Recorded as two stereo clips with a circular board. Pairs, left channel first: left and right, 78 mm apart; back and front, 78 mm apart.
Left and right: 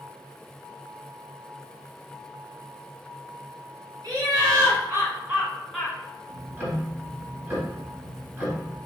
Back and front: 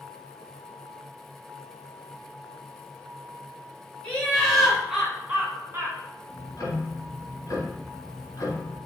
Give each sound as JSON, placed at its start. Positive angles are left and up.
{"t": 4.0, "sound": "laughter", "azimuth_deg": -105, "distance_m": 2.5}
{"t": 6.3, "sound": "ticking", "azimuth_deg": -145, "distance_m": 2.0}